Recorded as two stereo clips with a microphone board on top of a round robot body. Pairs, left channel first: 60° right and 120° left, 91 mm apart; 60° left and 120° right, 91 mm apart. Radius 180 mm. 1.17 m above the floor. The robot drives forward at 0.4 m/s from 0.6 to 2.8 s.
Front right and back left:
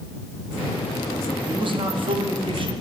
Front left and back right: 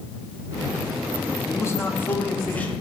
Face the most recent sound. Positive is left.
turn(degrees=140)